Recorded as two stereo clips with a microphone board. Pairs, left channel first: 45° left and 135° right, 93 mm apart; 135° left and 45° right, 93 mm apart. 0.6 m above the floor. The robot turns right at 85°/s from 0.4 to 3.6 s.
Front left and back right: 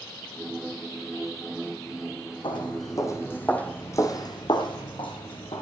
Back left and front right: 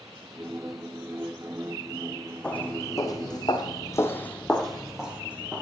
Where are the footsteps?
55° left, 1.5 m; by 5.6 s 30° left, 1.7 m.